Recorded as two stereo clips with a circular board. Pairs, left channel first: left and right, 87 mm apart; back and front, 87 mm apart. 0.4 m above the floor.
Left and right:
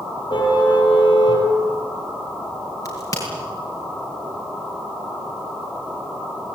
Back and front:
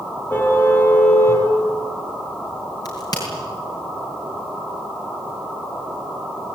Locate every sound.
0.3 s a car horn: 115° left, 7 m
2.9 s a crack: 140° left, 7.5 m